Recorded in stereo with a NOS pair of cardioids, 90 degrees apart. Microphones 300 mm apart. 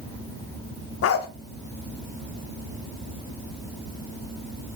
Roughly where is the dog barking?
Ahead left.